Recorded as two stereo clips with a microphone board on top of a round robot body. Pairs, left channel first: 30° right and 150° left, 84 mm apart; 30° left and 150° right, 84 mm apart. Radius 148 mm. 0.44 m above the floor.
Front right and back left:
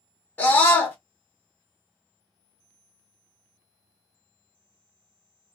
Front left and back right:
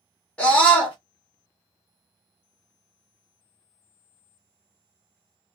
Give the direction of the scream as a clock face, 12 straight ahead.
1 o'clock.